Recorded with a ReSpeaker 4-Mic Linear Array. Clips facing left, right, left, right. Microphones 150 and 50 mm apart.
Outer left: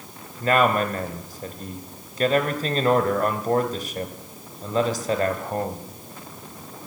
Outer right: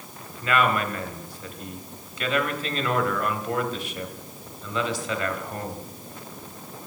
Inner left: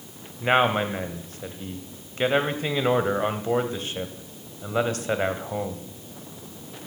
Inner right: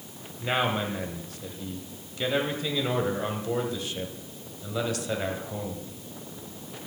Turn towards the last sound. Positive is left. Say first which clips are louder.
# outer left 4 dB, inner left 6 dB
turn(degrees=40)  # may be behind; listen again after turning